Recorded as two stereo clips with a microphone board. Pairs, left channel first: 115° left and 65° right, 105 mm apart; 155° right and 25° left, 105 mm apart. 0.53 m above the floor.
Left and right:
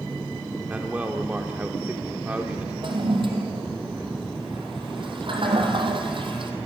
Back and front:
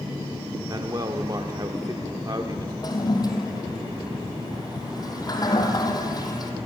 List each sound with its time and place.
0.7 s a man speaking: straight ahead, 1.2 m
2.8 s a toilet flushing: 105° right, 3.5 m